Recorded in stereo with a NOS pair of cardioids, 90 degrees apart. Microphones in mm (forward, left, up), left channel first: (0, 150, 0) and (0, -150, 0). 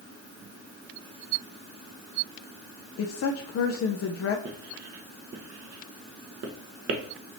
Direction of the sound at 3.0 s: 50° left.